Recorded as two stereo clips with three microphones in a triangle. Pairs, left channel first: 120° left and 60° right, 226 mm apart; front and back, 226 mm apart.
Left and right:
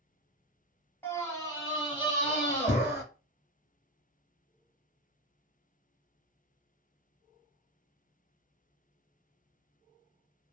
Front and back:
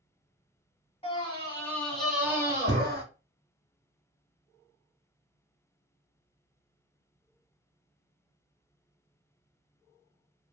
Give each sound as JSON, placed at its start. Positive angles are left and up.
{"t": 1.0, "sound": "a scream", "azimuth_deg": 45, "distance_m": 1.2}